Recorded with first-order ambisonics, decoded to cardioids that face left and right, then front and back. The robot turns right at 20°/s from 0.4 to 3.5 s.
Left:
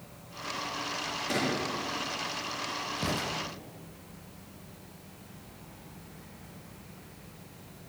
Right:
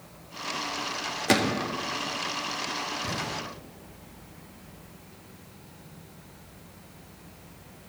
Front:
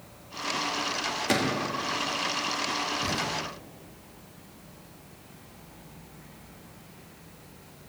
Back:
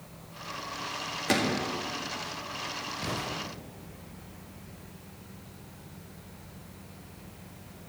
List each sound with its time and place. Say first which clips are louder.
1.3 s a gunshot: right 7 dB, back 1 dB; 90° right, 1.5 m; by 1.7 s 80° right, 1.5 m
3.0 s an explosion: even, front 5 dB; 90° left, 5 m; by 3.3 s 95° left, 5 m